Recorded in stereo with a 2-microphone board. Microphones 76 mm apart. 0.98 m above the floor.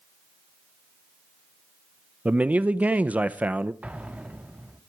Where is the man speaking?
20° right (ahead or behind), 0.7 m.